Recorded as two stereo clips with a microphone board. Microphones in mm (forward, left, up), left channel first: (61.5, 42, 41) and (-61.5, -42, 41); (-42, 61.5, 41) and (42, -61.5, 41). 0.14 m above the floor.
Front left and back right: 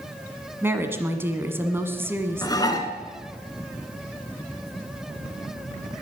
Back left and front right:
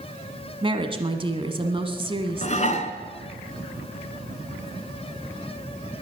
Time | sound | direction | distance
0.6 | a woman speaking | 80° right | 1.4 m
2.4 | dishes clattering | 95° left | 1.2 m